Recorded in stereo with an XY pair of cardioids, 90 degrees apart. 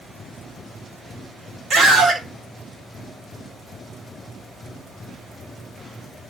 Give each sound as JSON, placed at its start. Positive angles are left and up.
{"t": 1.7, "sound": "a scream", "azimuth_deg": -70, "distance_m": 3.5}